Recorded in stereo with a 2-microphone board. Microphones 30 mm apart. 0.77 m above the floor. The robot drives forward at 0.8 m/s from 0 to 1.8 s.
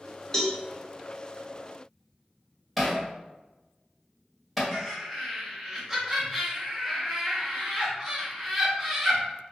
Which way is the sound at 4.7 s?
5° right (ahead or behind).